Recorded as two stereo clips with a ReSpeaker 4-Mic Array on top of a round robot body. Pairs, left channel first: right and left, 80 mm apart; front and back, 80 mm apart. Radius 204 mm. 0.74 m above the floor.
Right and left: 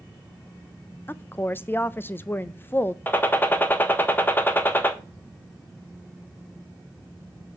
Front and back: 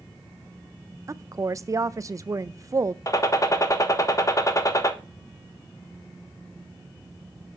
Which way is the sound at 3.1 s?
30° right.